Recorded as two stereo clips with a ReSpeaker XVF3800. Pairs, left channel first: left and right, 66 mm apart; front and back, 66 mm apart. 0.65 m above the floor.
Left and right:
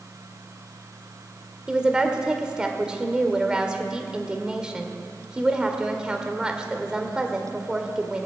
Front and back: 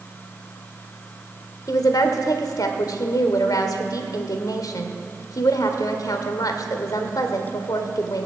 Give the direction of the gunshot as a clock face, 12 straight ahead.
No gunshot in this recording.